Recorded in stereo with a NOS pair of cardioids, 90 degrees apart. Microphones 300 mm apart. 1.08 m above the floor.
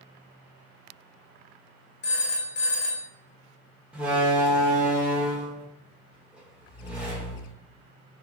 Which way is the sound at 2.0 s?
40° left.